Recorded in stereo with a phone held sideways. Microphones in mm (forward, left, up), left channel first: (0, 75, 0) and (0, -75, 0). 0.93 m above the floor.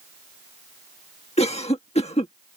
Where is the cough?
45° left (ahead or behind).